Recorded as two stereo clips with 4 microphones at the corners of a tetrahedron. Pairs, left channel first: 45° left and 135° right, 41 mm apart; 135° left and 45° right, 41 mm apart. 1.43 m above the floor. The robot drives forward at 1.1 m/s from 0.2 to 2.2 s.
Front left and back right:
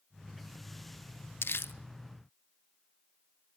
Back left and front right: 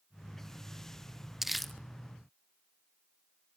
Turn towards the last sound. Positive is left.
turn(degrees=115)